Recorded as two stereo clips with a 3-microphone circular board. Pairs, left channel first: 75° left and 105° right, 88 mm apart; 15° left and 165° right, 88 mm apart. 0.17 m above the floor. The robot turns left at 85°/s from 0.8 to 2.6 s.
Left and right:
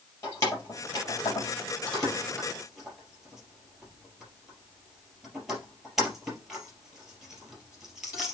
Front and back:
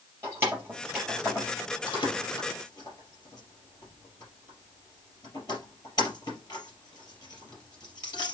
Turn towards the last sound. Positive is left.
turn(degrees=-20)